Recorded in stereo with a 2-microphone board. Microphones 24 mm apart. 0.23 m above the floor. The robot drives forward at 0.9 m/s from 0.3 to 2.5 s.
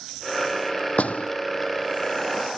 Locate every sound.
1.0 s a door slam: 65° left (ahead or behind)